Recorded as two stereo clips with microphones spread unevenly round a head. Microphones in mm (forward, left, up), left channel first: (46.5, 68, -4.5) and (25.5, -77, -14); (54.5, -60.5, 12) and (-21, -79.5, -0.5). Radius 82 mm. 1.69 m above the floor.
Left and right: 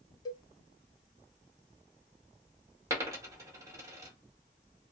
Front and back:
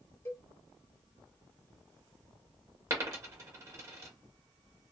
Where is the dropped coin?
155° right, 1.4 m.